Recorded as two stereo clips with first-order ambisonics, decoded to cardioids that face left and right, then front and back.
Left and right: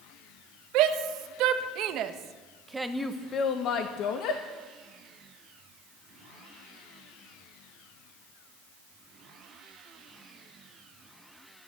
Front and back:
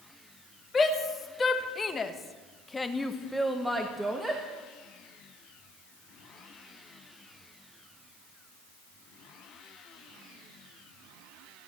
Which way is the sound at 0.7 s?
70° right.